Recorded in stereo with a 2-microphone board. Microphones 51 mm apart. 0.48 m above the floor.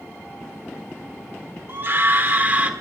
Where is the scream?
50° right (ahead or behind), 1.3 m; by 2.7 s 30° right (ahead or behind), 1.1 m.